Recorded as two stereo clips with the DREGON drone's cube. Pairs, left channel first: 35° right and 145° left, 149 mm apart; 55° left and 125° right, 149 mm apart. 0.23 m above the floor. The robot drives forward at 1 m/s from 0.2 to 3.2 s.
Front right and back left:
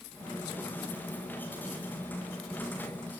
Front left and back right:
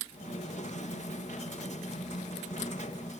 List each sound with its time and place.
Only background noise.